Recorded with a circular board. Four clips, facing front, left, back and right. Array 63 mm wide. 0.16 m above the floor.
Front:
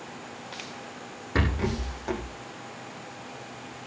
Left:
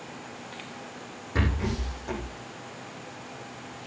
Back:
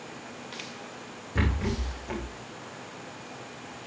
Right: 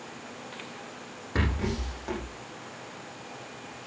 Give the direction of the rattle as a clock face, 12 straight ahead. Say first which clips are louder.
Left 1 dB, front 2 dB; 1 o'clock.